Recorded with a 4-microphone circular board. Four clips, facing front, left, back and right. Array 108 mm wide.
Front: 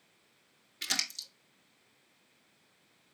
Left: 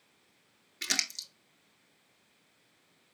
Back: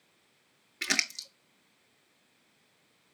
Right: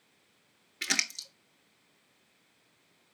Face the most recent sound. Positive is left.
turn(degrees=-160)